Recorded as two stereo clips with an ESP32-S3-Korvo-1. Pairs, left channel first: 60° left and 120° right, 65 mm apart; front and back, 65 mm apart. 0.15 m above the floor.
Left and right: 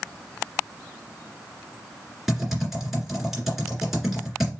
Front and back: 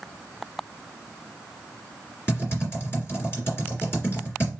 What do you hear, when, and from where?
2.3 s typing on a keyboard: 35° right, 2.5 m